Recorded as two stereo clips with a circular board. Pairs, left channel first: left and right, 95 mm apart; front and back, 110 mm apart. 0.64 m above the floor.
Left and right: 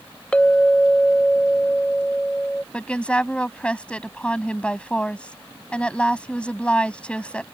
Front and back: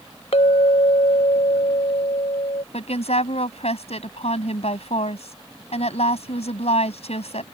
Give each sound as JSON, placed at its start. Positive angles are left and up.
{"t": 0.3, "sound": "a clink", "azimuth_deg": 15}
{"t": 2.7, "sound": "a woman speaking", "azimuth_deg": 10}